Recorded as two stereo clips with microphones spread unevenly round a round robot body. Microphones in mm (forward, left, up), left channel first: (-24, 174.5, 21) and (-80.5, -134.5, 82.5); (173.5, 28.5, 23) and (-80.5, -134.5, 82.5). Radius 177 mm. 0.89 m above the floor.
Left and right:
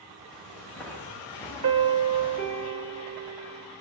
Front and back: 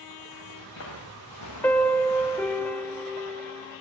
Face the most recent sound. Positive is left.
turn(degrees=-55)